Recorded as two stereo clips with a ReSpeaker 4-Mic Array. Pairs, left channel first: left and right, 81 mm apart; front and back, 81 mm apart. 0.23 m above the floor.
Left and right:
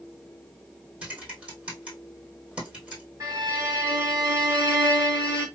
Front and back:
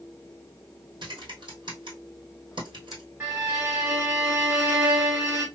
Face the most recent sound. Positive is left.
turn(degrees=-125)